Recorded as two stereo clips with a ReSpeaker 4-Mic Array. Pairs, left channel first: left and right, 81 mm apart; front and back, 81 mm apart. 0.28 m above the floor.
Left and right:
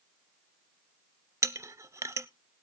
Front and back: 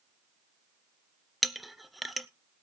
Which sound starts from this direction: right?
A clink, at 1.4 s.